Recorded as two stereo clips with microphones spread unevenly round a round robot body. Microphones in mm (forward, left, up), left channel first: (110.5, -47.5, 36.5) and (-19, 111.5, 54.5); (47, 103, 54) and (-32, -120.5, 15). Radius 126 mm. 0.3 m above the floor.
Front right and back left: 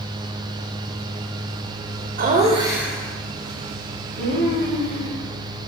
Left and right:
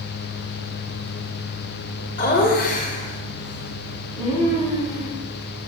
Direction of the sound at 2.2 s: 115° left.